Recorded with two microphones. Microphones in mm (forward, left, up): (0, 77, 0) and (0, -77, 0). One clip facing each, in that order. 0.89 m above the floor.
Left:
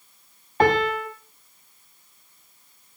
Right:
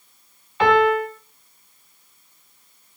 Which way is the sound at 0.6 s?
45° left (ahead or behind).